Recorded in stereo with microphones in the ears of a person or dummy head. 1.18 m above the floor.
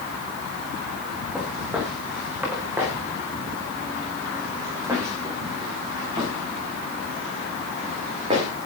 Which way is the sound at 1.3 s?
5° right (ahead or behind).